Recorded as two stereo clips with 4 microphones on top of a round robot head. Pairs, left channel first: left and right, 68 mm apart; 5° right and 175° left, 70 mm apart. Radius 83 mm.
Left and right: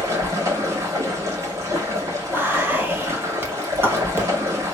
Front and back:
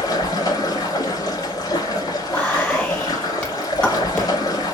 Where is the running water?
40° right, 1.2 m.